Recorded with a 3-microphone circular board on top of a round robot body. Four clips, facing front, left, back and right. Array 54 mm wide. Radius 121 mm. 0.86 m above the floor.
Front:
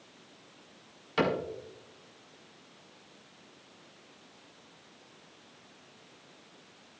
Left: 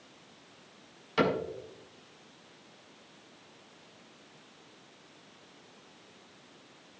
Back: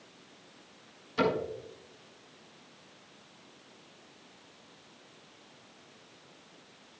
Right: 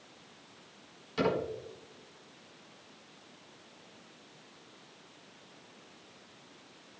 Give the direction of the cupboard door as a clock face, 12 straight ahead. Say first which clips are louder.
Left 2 dB, even; 11 o'clock.